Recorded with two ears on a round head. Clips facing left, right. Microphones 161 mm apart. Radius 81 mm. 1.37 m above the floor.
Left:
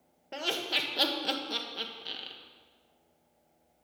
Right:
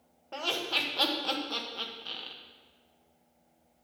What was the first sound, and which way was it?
Laughter, 20° left (ahead or behind).